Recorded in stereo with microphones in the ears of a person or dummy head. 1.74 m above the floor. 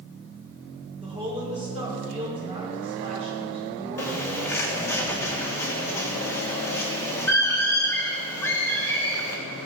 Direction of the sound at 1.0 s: 30° right (ahead or behind).